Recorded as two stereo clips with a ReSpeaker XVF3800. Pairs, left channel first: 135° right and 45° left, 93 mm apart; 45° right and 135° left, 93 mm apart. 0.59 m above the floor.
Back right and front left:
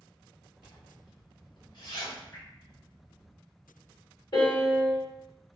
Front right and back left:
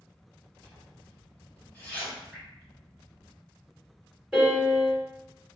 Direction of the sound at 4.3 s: 145° right.